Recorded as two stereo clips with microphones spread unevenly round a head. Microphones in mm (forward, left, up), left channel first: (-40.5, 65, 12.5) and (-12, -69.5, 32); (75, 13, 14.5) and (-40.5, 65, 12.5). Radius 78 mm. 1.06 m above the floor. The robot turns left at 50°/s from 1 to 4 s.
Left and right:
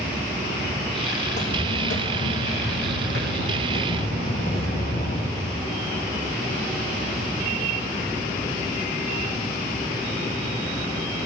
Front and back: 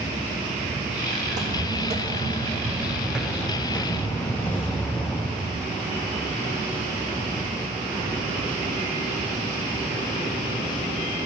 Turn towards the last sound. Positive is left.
turn(degrees=55)